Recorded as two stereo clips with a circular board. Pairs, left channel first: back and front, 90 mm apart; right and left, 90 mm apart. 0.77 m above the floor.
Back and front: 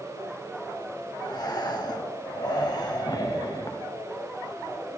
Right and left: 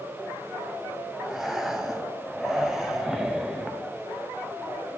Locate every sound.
1.2 s breathing: 175° left, 0.8 m